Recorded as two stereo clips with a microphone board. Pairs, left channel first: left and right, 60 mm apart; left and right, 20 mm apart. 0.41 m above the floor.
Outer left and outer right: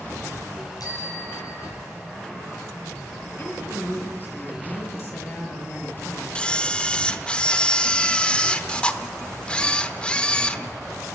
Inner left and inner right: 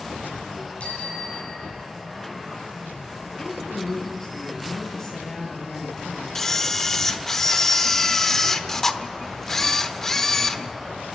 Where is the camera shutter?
20° left (ahead or behind), 0.9 m.